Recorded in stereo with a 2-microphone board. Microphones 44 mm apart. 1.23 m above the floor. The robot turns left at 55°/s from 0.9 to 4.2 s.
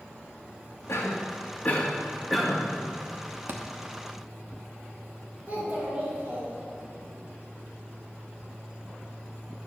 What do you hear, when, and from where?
0.9 s a cough: 75° left (ahead or behind), 2 m; by 2.7 s 20° right (ahead or behind), 2 m
3.5 s a thud: 55° right (ahead or behind), 0.9 m; by 3.6 s 60° right (ahead or behind), 0.9 m
5.5 s a child speaking: 20° right (ahead or behind), 3.5 m